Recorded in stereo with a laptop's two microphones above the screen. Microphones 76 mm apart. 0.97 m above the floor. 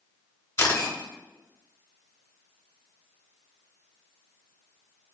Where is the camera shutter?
40° left (ahead or behind), 1.1 m.